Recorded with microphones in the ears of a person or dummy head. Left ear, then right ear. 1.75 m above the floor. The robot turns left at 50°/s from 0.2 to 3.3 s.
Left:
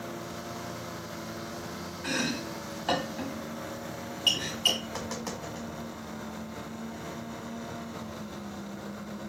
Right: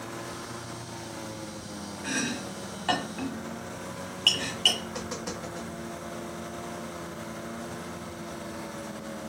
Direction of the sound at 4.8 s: 25° left (ahead or behind).